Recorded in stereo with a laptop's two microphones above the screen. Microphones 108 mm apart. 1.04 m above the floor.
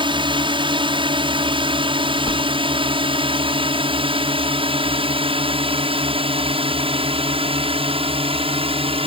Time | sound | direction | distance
0.0 | a drone | 50° right (ahead or behind) | ?
2.2 | a whoosh | 70° left (ahead or behind) | ?